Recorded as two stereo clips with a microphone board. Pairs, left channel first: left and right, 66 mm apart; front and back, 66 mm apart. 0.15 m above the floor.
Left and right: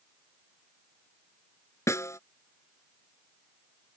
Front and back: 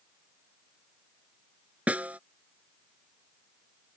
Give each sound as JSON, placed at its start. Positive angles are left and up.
{"t": 1.9, "sound": "a snare drum", "azimuth_deg": 115}